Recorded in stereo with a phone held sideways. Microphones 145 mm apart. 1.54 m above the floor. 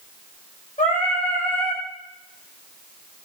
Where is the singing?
60° left (ahead or behind), 1.2 m.